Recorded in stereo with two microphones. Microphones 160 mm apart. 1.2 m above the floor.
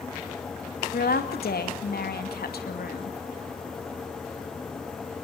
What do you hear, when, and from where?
0.9 s a woman speaking: 75° left (ahead or behind), 2.5 m